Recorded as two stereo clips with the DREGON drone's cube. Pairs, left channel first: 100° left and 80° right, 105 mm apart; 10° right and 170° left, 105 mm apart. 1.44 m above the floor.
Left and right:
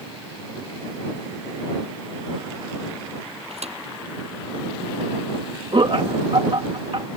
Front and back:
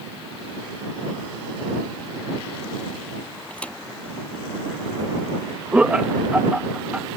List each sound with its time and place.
3.5 s a thud: 90° right
5.7 s laughter: 110° right